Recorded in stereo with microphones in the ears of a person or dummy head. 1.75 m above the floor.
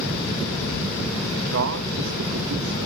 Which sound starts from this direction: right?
A man speaking, at 1.5 s.